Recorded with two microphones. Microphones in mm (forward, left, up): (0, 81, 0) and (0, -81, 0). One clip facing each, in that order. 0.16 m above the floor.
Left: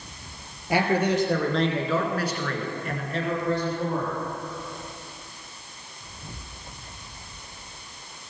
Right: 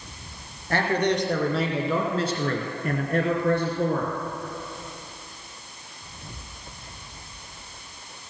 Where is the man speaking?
10° left (ahead or behind), 2.5 m; by 4.2 s 65° right (ahead or behind), 2.5 m.